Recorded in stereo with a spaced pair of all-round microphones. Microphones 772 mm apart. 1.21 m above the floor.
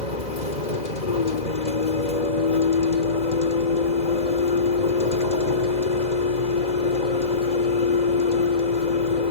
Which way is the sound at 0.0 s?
60° left (ahead or behind).